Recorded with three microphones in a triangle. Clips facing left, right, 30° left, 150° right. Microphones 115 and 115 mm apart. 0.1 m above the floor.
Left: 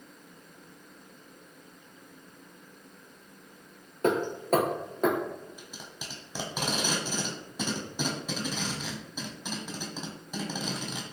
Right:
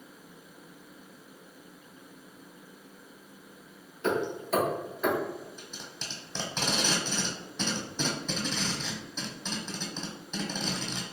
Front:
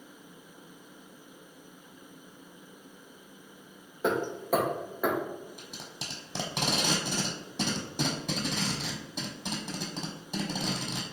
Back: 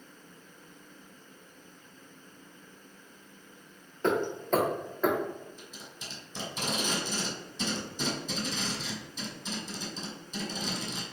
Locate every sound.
4.0 s hammering: 110° left, 0.8 m
5.6 s tape being pulled: 10° left, 0.8 m